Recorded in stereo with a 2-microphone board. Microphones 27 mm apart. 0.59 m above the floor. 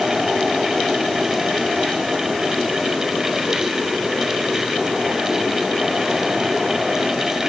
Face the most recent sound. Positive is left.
No sound to turn to.